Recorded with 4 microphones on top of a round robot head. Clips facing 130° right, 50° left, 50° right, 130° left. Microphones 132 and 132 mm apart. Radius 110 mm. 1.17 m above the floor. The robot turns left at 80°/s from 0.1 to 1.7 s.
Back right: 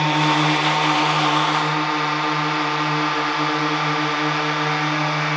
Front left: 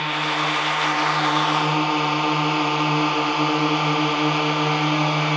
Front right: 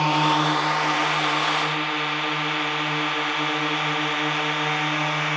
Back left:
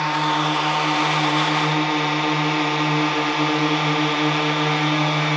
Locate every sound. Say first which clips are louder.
0.0 s a drone: back right 6 dB, front right 1 dB; 115° right; by 5.4 s 105° left